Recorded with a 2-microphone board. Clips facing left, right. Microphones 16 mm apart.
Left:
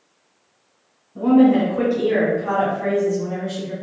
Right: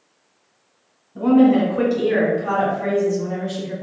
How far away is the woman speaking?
About 1.2 m.